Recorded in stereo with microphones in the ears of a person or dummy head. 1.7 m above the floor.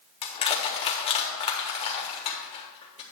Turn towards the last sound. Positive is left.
turn(degrees=25)  # may be behind; listen again after turning